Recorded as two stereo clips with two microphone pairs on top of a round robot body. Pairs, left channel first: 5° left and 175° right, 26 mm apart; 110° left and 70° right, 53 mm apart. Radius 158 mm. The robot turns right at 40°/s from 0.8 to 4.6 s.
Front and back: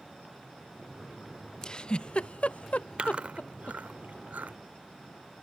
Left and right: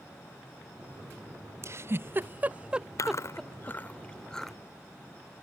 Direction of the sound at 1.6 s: 50° right.